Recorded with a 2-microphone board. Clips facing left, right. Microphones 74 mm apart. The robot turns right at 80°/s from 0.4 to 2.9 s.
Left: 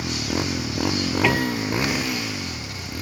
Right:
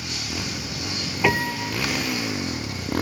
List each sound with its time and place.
0.0 s a motorcycle: 45° left; by 3.0 s 115° right
1.2 s a piano: 175° right; by 1.8 s 130° right